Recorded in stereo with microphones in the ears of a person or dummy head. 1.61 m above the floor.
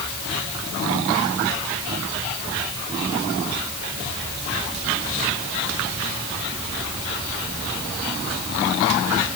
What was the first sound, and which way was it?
Only background noise.